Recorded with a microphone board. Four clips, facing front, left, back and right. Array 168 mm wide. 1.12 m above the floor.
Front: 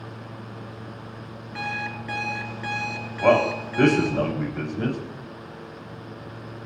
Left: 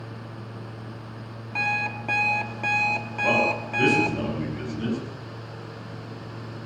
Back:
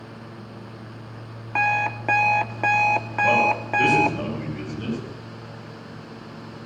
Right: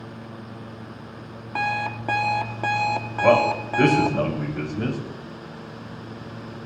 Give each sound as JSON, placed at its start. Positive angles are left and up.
{"t": 1.6, "sound": "an alarm clock", "azimuth_deg": -155, "distance_m": 1.3}
{"t": 3.2, "sound": "a man speaking", "azimuth_deg": -45, "distance_m": 7.5}